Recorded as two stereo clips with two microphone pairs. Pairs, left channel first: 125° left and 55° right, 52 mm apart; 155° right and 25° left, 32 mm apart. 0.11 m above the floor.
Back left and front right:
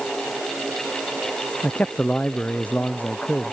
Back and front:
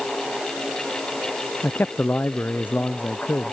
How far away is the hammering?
No hammering in this recording.